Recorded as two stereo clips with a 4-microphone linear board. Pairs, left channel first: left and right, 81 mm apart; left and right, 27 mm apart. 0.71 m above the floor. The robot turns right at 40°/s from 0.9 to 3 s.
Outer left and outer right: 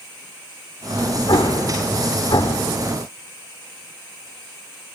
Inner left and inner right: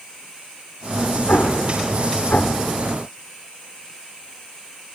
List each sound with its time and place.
1.3 s an explosion: 65° left (ahead or behind), 0.9 m; by 2.7 s 55° left (ahead or behind), 0.9 m